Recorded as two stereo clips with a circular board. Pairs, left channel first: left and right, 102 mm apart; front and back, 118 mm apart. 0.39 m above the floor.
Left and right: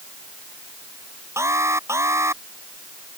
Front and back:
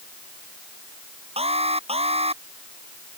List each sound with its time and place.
1.4 s an alarm: 150° right